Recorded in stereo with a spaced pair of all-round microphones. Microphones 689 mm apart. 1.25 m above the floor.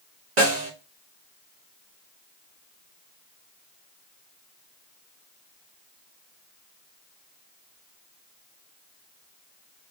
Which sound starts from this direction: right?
A snare drum, at 0.4 s.